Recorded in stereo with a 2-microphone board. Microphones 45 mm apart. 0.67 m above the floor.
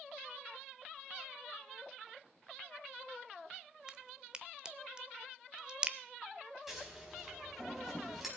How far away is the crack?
About 0.7 m.